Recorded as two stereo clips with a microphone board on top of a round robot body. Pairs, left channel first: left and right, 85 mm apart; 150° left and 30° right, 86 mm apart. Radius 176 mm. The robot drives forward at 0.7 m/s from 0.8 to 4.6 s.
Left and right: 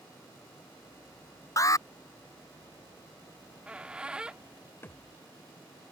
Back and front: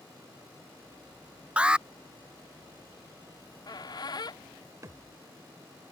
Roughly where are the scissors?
No scissors in this recording.